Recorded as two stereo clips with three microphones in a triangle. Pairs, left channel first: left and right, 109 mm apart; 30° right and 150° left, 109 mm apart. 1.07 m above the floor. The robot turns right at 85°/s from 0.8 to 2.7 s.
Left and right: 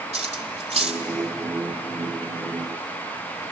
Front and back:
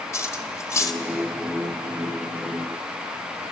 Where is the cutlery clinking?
95° right, 1.8 m; by 1.1 s 70° right, 1.8 m.